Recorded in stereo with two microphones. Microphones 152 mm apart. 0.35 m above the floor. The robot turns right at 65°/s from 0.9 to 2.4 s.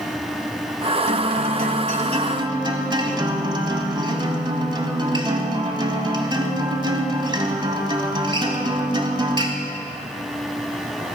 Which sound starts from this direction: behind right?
A guitar, at 1.1 s.